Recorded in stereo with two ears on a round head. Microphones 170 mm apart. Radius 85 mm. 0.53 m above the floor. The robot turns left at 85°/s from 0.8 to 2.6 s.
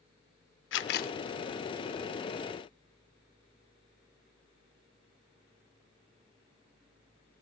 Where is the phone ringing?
I don't hear a phone ringing.